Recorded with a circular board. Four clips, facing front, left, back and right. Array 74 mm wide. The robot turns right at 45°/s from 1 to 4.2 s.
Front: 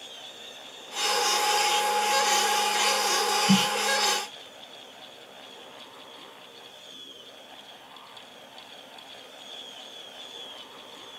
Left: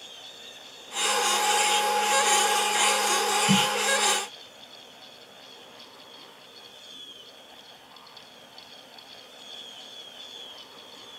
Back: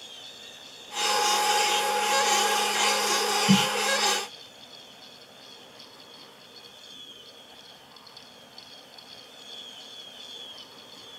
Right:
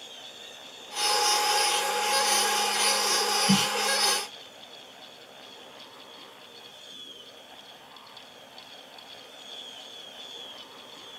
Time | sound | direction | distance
3.5 | a snare drum | 160° left | 2 m